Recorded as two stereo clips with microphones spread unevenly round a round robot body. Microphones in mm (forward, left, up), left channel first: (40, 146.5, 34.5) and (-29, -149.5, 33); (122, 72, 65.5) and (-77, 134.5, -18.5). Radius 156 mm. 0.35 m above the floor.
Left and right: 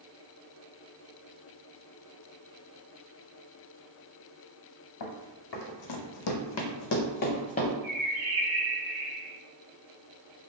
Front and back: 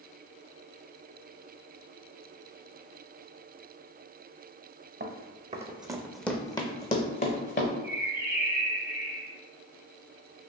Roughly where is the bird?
Behind right.